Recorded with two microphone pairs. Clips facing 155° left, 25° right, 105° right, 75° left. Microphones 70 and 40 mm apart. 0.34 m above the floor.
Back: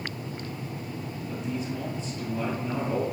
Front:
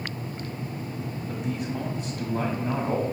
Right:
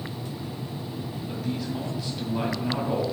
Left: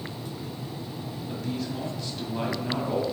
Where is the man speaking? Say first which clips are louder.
Front 1 dB, right 1 dB; 20° right, 1.8 m.